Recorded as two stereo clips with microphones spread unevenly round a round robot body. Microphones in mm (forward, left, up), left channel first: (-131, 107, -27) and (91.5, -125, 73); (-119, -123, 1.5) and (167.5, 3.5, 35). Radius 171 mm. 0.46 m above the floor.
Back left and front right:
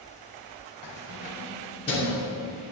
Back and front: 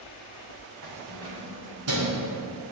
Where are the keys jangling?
80° left, 2.5 m; by 2.2 s 60° left, 4 m.